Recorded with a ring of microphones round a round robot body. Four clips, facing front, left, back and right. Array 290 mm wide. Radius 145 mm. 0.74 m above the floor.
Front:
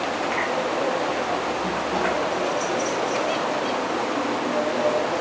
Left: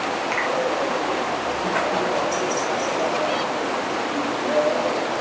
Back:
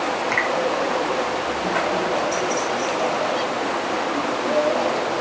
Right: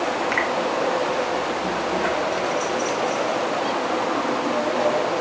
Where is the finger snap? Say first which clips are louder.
Right 1 dB, back 2 dB; 165° right, 3.5 m.